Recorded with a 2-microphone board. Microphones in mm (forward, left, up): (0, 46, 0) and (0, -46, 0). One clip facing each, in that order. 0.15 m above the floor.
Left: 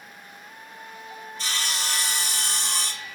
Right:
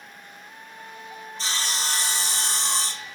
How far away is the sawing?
About 0.9 m.